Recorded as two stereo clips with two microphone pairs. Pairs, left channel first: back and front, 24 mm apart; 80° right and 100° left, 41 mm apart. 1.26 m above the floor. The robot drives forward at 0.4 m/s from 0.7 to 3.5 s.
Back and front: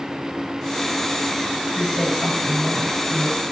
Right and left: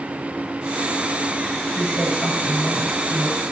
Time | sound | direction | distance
1.8 | a woman speaking | 55° right | 7 m